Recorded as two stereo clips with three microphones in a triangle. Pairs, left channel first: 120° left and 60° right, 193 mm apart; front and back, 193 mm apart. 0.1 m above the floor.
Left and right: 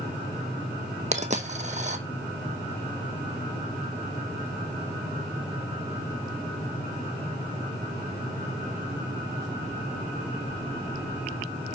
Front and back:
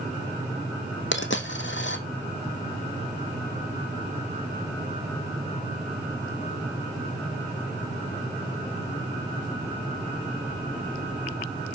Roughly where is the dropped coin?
Ahead.